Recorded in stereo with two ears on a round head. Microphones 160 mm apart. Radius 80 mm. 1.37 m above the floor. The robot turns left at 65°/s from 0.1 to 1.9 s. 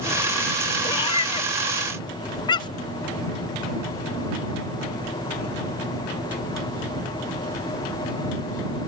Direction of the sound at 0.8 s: 20° left (ahead or behind).